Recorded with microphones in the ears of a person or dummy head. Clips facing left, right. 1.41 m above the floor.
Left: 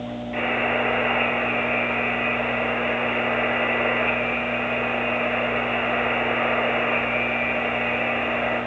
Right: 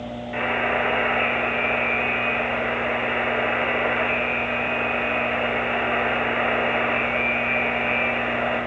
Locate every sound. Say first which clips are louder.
0.3 s a buzzer: even; 5° right (ahead or behind), 0.5 m